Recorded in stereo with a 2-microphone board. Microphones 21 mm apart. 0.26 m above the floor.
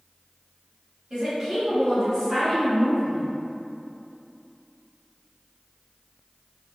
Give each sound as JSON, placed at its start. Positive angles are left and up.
{"t": 1.1, "sound": "a woman speaking", "side_deg": -35, "distance_m": 1.3}